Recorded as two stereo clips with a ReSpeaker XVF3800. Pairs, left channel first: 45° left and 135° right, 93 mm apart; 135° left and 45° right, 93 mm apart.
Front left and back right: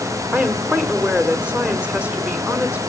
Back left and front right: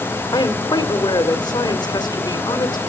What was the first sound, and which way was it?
A woman speaking, 155° left.